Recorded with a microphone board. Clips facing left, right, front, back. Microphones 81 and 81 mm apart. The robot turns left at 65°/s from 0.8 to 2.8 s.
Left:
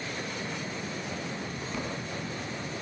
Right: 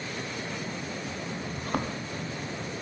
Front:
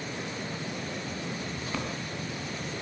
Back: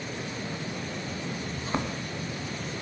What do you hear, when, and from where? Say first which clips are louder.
1.6 s a thud: right 7 dB, back 6 dB; 110° right, 2 m; by 1.9 s 135° right, 2 m